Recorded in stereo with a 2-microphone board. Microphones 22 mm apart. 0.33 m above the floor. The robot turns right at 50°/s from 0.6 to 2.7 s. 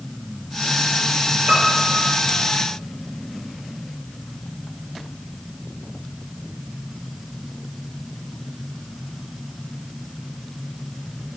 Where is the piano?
65° right, 4 m; by 2.1 s 35° right, 4 m.